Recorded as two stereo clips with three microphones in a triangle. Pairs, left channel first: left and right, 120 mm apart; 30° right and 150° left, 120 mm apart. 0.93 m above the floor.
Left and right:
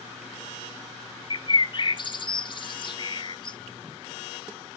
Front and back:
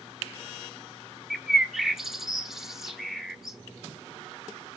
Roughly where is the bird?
Ahead left.